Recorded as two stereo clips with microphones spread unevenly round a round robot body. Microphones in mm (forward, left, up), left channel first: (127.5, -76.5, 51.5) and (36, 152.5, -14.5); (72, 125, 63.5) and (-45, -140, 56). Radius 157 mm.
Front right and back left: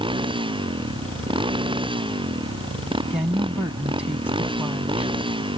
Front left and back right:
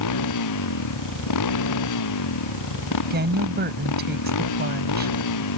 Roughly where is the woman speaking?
Behind.